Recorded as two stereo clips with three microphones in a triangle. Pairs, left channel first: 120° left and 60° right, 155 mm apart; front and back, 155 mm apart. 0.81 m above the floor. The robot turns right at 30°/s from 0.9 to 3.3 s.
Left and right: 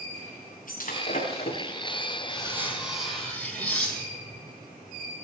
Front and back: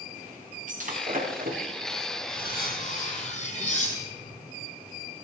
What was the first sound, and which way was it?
Breaking glass, 150° left.